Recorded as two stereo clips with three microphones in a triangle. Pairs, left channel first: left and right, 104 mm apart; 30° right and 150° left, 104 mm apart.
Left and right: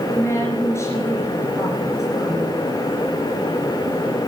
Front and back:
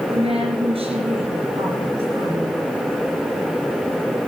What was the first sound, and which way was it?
A woman speaking, 150° left.